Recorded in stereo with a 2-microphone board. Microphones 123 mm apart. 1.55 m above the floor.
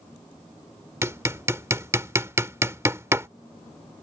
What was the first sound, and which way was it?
Hammering, 25° right (ahead or behind).